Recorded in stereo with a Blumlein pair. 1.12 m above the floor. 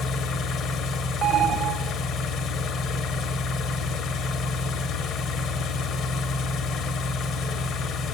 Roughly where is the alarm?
Ahead right.